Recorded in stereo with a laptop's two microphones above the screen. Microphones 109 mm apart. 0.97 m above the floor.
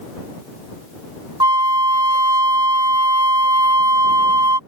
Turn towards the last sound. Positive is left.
turn(degrees=-40)  # may be behind; listen again after turning